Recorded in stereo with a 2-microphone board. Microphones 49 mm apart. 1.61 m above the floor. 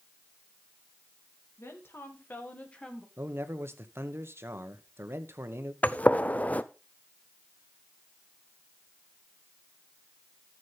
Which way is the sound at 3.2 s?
55° right (ahead or behind).